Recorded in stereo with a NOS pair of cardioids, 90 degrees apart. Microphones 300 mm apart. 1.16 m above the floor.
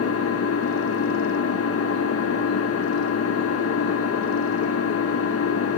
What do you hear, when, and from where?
0.0 s an engine running: 55° left, 1.3 m